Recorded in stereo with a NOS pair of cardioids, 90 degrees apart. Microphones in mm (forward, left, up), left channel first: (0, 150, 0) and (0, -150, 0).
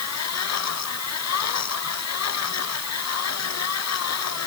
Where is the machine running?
60° left.